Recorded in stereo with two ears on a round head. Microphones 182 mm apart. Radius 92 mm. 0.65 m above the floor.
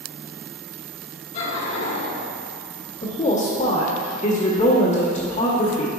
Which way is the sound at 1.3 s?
35° left (ahead or behind).